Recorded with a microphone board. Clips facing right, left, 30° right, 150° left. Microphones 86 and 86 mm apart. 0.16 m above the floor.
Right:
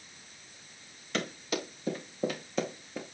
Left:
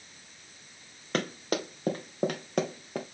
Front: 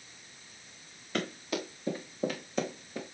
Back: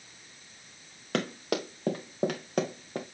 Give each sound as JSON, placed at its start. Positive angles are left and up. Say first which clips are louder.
{"t": 1.1, "sound": "running footsteps", "louder": "left 3 dB, back 4 dB", "azimuth_deg": 135, "distance_m": 3.5}